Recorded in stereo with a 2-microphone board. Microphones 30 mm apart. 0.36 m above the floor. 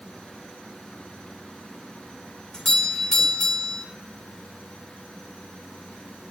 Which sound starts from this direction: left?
A doorbell, at 2.5 s.